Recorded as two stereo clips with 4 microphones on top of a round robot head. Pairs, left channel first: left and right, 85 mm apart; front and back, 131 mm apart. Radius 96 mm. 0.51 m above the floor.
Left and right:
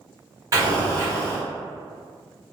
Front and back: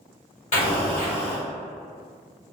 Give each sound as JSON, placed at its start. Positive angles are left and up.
{"t": 0.5, "sound": "an explosion", "azimuth_deg": -40, "distance_m": 1.6}